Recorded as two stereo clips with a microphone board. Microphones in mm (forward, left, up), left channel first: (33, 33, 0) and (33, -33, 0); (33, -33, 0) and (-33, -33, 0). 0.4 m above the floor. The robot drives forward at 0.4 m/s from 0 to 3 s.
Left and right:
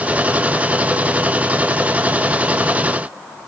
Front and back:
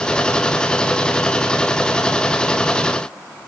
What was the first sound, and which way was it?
Only background noise.